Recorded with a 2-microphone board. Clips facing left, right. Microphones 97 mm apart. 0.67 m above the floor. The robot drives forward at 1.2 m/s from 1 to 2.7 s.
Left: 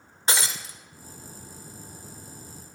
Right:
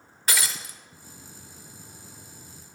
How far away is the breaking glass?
About 1.2 m.